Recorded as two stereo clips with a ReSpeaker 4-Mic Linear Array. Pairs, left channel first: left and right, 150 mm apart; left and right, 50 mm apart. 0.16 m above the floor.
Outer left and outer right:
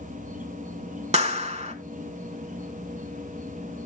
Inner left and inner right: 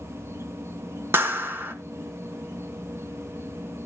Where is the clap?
45° right (ahead or behind), 1.4 m.